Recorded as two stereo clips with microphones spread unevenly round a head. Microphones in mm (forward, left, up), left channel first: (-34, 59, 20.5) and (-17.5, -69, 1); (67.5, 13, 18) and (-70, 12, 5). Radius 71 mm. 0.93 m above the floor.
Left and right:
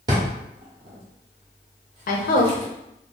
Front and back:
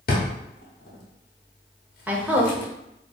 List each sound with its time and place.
0.1 s a drawer: 20° right, 0.7 m
2.1 s a woman speaking: 105° left, 0.7 m